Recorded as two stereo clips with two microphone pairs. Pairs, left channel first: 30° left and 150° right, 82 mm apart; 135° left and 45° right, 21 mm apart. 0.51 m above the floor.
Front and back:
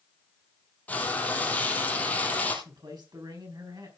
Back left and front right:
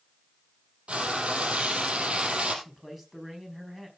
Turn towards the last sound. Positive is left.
turn(degrees=-120)